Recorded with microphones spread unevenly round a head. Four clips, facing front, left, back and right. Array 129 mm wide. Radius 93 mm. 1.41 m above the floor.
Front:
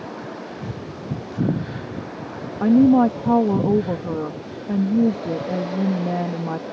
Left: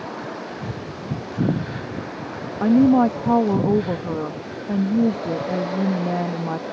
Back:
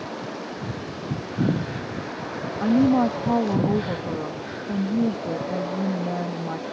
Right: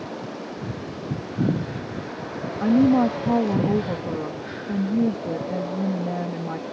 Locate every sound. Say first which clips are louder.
2.6 s a woman speaking: left 3 dB, front 5 dB; 10° right